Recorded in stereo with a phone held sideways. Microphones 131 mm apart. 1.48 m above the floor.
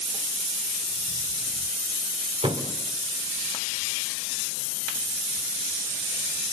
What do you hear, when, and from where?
2.4 s a thud: 40° right (ahead or behind), 1.5 m